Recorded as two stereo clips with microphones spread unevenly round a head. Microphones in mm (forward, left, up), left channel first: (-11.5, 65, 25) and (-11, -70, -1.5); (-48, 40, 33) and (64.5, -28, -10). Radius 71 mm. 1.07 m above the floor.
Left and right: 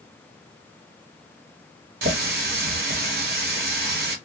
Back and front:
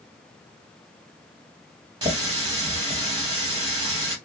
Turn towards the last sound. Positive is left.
turn(degrees=-95)